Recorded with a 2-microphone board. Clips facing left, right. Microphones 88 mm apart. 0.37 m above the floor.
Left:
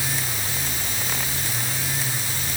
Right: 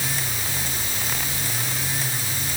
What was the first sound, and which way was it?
Only background noise.